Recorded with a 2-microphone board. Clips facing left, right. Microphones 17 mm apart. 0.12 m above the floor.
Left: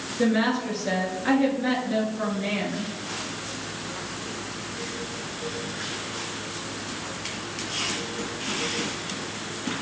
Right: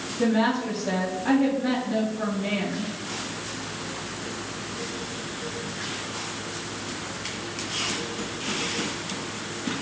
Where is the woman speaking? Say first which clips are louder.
Even; 40° left (ahead or behind), 1.4 m.